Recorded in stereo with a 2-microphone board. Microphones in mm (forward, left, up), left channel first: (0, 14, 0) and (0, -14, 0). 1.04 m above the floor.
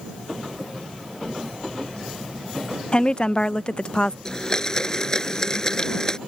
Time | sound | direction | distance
2.9 | a woman speaking | 40° left (ahead or behind) | ?
4.2 | a blender | 20° left (ahead or behind) | ?